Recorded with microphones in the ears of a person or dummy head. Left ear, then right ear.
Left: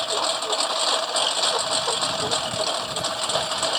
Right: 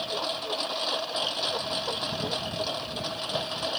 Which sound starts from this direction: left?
A lawn mower, at 0.0 s.